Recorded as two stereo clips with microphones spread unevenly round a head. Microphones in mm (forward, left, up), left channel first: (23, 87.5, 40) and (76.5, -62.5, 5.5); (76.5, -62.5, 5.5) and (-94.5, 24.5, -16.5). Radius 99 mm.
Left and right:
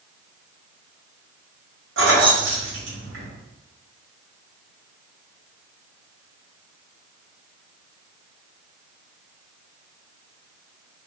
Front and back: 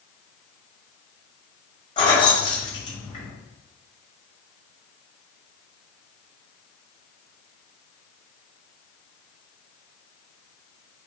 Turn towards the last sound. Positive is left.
turn(degrees=-95)